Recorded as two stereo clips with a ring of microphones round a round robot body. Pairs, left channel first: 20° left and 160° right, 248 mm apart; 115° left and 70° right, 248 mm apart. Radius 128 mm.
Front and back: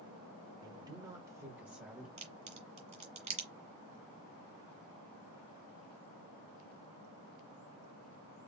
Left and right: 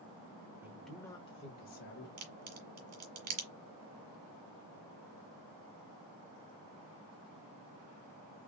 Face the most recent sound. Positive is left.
turn(degrees=-90)